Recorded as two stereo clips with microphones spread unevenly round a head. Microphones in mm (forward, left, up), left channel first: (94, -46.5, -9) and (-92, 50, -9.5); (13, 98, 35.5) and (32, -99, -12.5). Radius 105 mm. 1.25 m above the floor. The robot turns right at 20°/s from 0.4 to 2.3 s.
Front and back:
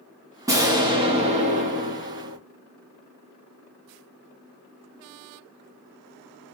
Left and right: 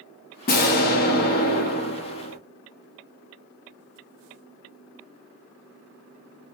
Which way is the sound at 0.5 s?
80° left.